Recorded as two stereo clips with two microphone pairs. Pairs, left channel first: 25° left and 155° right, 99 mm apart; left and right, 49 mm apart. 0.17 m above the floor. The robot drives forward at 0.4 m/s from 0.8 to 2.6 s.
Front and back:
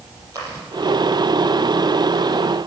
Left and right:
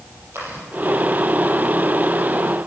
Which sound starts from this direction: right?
Chewing, at 0.3 s.